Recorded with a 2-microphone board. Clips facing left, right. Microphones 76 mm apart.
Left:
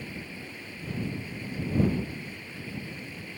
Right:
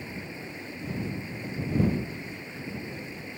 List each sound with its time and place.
0.0 s running water: 20° right (ahead or behind)